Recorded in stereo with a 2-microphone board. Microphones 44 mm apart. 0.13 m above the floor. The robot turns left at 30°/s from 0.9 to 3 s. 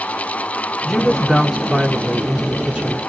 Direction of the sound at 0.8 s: 10° left (ahead or behind).